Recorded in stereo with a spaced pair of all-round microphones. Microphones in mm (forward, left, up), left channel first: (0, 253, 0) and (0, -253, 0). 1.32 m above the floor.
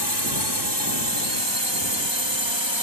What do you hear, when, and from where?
0.0 s a drone: 50° right (ahead or behind); by 2.8 s 60° right (ahead or behind)